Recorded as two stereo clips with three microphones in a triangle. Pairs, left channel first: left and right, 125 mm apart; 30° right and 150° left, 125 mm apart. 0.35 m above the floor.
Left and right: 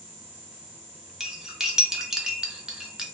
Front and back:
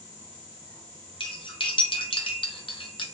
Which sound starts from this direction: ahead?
Cutlery clinking, at 1.2 s.